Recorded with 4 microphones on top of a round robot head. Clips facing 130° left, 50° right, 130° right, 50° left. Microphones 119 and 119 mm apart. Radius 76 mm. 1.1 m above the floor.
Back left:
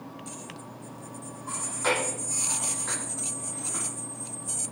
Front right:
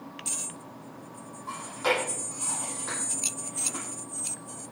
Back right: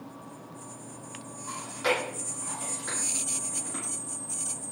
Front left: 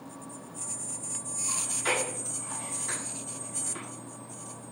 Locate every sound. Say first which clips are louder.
1.5 s chewing: front right 1 dB, back right 4 dB; 130° right, 9.5 m